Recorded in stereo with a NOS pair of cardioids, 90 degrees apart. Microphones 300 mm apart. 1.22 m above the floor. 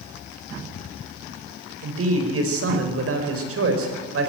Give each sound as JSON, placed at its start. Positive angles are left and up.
{"t": 1.8, "sound": "a man speaking", "azimuth_deg": -50, "distance_m": 5.0}